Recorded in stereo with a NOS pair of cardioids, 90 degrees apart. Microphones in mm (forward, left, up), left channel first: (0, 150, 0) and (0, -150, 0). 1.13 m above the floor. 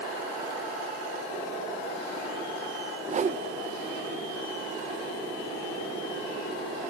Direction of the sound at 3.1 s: 25° right.